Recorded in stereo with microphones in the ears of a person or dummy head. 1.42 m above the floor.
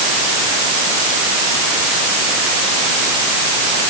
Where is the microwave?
I don't hear a microwave.